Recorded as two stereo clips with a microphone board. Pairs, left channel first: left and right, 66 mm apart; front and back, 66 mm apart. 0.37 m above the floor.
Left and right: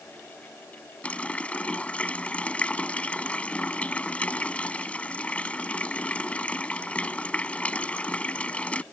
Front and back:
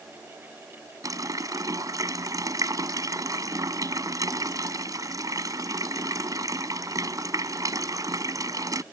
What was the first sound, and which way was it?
A running tap, 160° left.